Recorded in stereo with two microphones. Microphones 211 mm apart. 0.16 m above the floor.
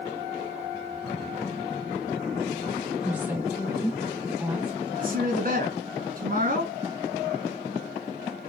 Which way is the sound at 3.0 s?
10° right (ahead or behind).